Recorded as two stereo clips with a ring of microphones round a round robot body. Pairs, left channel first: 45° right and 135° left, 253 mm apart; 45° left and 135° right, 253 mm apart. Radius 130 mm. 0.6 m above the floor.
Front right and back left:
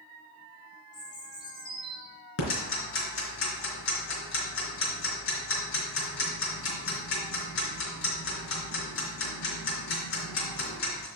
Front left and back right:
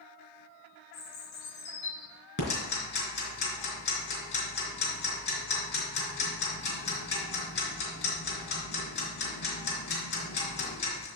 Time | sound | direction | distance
0.9 | a bird | 30° left | 4 m
2.4 | ticking | 5° right | 3 m